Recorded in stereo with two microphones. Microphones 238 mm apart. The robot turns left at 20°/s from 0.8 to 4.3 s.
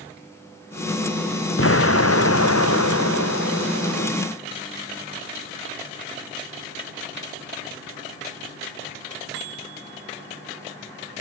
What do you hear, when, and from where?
1.6 s an explosion: 120° left; by 4.1 s 70° left